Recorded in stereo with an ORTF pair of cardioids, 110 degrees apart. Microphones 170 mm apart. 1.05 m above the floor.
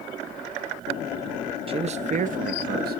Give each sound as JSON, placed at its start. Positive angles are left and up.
{"t": 1.7, "sound": "a man speaking", "azimuth_deg": -35, "distance_m": 1.0}